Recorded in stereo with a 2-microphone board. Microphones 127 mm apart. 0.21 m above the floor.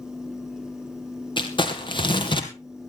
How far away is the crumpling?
About 2 m.